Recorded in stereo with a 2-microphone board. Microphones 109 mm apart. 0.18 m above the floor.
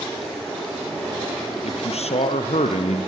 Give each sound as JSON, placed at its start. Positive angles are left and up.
{"t": 1.6, "sound": "a man speaking", "side_deg": 75, "distance_m": 3.5}